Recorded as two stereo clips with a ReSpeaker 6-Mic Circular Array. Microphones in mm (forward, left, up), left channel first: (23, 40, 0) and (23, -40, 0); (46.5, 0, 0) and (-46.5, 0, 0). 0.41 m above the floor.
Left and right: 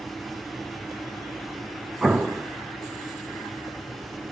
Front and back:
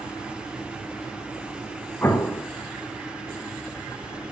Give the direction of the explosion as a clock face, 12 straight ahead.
1 o'clock.